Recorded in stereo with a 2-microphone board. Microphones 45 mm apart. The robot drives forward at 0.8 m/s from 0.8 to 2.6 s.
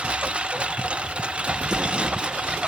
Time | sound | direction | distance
0.0 | a lawn mower | 25° right (ahead or behind) | ?
1.6 | an explosion | 20° right (ahead or behind) | ?